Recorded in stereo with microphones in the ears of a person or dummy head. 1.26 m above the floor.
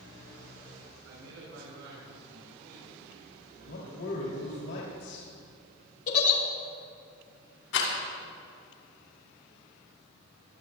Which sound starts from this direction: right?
A man speaking, at 1.0 s.